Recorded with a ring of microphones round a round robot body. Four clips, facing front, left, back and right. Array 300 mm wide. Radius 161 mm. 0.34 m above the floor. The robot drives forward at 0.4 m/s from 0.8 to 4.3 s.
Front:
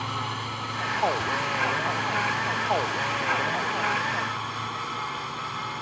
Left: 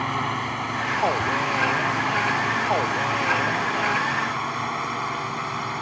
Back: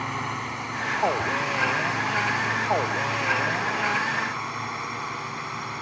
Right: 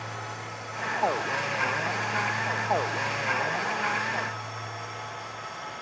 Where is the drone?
105° left; by 5.8 s 100° left.